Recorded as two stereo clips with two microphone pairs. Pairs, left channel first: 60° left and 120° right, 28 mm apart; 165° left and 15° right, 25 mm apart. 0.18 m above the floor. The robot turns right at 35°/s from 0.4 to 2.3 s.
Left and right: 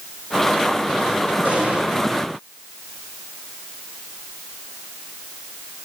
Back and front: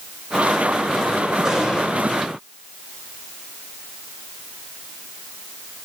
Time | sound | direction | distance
1.4 | an explosion | 85° right | 9 m